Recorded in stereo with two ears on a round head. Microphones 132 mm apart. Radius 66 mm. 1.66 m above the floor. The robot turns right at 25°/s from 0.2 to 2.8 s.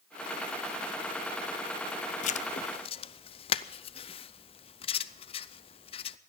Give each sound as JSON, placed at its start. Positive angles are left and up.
{"t": 2.2, "sound": "writing", "side_deg": 50, "distance_m": 0.5}